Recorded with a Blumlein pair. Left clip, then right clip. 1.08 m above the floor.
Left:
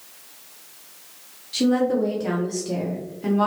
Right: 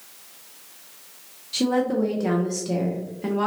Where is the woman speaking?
10° right, 0.6 m.